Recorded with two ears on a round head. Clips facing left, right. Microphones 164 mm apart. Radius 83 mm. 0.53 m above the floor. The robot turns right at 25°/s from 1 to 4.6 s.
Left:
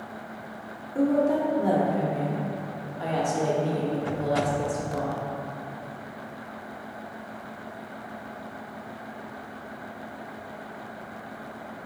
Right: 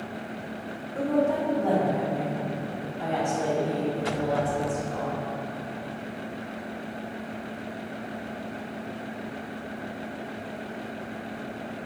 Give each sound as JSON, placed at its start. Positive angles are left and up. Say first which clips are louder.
{"t": 0.9, "sound": "a woman speaking", "louder": "left 2 dB", "side_deg": 15, "distance_m": 0.8}